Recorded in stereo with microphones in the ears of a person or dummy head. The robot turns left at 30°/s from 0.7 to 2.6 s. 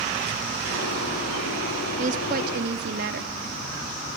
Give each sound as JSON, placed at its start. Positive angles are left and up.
{"t": 2.0, "sound": "a woman speaking", "side_deg": -40, "distance_m": 2.0}